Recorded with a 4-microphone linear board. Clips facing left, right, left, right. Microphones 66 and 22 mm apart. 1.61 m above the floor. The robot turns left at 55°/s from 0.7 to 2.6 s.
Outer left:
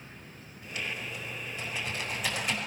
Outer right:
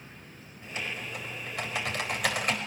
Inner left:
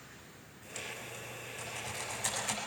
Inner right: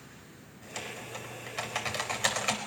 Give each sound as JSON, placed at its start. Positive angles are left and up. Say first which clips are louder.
{"t": 0.6, "sound": "typing on a keyboard", "louder": "even, inner right 3 dB", "side_deg": -25, "distance_m": 4.5}